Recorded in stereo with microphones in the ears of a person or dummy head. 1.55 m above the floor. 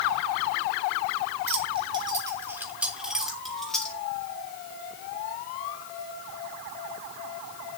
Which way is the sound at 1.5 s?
35° right (ahead or behind).